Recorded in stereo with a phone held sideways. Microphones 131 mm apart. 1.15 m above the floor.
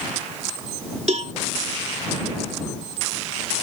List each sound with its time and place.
1.1 s a cowbell: 60° right (ahead or behind)